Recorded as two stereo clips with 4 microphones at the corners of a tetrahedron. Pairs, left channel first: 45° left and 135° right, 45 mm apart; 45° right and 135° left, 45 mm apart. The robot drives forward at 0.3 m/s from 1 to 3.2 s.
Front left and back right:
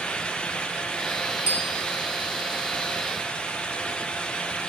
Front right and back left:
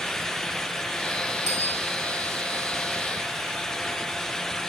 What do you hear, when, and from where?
1.5 s a bicycle bell: 60° left, 4.5 m; by 1.8 s 65° left, 4.5 m